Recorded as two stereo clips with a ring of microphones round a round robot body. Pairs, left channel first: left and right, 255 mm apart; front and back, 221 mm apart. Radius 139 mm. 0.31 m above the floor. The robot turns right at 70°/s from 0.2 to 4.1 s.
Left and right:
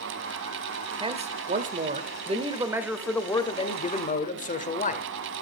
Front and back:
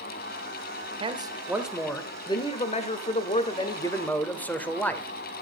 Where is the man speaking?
140° right, 1.5 m; by 5.1 s 75° left, 1.5 m.